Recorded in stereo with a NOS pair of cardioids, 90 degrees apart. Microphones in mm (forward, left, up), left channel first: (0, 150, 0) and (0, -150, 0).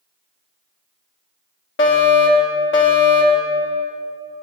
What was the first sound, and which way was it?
A fire alarm, 45° left.